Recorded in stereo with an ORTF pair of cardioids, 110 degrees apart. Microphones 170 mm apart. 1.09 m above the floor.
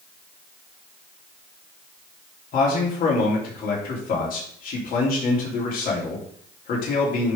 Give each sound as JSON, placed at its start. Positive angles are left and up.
{"t": 2.5, "sound": "a man speaking", "azimuth_deg": 60, "distance_m": 3.5}